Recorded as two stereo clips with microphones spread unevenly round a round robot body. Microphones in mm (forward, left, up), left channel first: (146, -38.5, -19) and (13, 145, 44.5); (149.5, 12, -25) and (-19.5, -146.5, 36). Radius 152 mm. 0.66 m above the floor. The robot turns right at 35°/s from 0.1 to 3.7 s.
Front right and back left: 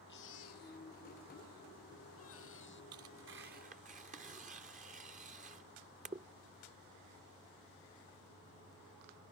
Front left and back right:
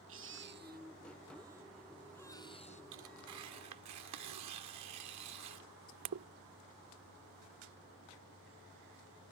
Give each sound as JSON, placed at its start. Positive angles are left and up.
{"t": 0.1, "sound": "a baby crying", "azimuth_deg": -110}
{"t": 2.9, "sound": "tearing paper", "azimuth_deg": 170}